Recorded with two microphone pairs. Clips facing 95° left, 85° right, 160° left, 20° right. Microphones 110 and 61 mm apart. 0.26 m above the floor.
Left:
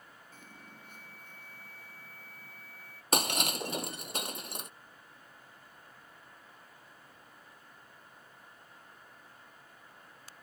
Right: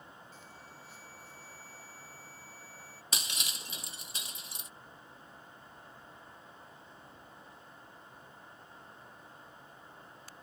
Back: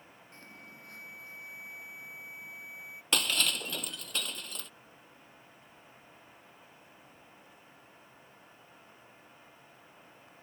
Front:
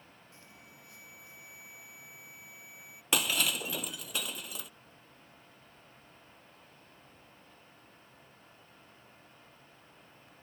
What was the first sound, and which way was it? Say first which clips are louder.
An alarm: right 1 dB, back 7 dB; 125° left.